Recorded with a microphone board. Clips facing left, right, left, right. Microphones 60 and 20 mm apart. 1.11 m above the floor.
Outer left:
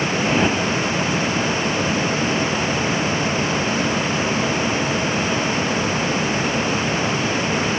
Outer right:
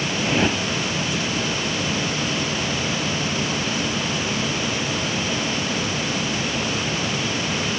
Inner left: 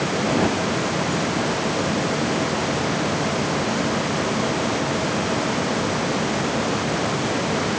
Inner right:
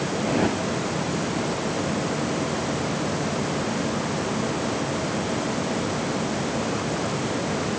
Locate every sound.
0.2 s a whoosh: 5° left (ahead or behind)